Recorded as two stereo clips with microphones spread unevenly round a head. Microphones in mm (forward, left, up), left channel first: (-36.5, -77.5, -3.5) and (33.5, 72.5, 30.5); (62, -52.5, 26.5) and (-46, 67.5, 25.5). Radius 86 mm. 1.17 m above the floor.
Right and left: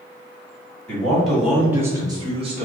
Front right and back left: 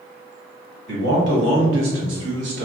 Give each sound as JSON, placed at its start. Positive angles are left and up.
{"t": 0.9, "sound": "a man speaking", "azimuth_deg": 160, "distance_m": 1.7}